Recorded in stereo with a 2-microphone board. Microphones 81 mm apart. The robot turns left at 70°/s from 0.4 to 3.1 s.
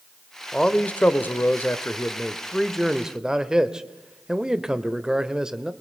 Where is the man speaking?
5° left (ahead or behind), 1.0 m; by 5.7 s 10° right (ahead or behind), 1.0 m.